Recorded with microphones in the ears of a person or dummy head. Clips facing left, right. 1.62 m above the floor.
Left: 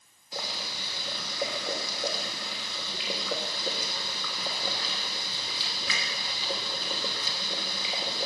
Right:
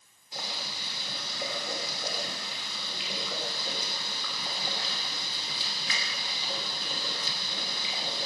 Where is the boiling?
65° left (ahead or behind), 3 m.